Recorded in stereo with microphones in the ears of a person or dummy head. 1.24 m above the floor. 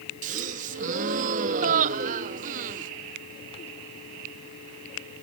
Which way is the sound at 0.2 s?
40° right (ahead or behind).